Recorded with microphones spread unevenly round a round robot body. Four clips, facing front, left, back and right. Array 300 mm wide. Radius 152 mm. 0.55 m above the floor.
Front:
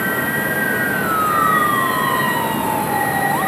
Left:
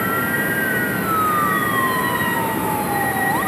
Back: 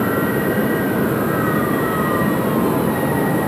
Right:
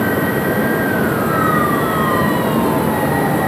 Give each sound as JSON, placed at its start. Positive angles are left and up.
{"t": 0.0, "sound": "an insect", "azimuth_deg": 175, "distance_m": 3.0}